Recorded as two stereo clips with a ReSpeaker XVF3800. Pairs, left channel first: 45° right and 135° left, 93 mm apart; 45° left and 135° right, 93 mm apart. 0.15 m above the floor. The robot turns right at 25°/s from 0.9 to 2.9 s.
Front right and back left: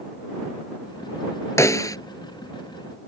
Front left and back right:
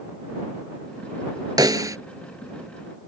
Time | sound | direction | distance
1.6 | a snare drum | 100° right | ?